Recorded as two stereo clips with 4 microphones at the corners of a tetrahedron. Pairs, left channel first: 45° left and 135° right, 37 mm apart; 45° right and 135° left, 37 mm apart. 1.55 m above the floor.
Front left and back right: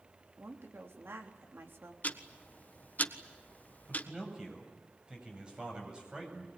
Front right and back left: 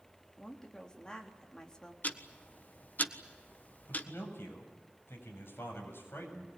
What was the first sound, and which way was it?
A woman speaking, 115° right.